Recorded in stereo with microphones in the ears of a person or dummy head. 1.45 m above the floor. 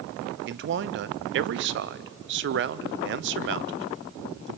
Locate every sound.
0.5 s a man speaking: 55° right (ahead or behind), 0.5 m